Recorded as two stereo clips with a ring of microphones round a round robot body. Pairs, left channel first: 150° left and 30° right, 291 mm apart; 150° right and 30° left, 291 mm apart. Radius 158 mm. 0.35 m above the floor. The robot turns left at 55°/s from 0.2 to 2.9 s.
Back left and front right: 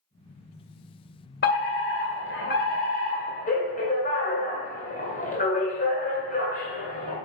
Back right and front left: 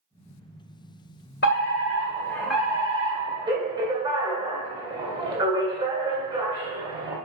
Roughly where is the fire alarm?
Behind.